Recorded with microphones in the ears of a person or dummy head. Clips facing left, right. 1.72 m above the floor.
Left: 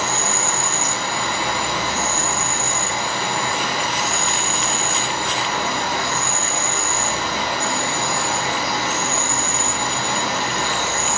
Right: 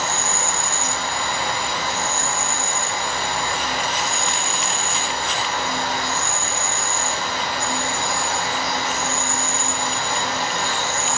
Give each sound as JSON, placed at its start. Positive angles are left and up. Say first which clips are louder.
{"t": 0.0, "sound": "an insect", "louder": "left 2 dB", "side_deg": 75, "distance_m": 1.7}